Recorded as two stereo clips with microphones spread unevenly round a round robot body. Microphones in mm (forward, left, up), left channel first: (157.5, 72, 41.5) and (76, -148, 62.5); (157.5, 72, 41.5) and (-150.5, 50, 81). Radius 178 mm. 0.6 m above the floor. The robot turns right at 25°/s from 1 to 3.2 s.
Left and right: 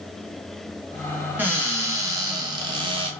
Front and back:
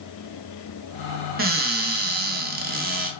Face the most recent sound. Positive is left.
turn(degrees=-150)